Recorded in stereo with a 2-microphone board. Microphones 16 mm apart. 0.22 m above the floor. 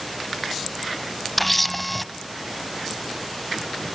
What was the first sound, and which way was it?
A camera shutter, 10° left (ahead or behind).